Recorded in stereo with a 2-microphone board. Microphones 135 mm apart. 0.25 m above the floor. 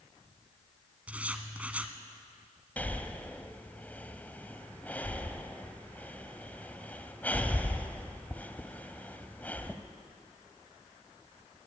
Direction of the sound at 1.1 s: 10° right (ahead or behind).